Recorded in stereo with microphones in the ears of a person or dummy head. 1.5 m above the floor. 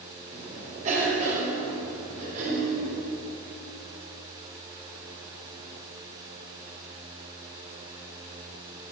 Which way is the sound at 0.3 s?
45° right (ahead or behind).